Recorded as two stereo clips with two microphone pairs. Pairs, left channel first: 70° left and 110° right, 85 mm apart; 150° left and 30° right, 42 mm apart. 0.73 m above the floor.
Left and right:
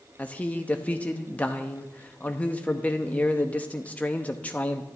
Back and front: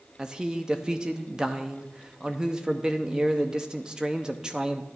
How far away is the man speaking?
About 0.7 m.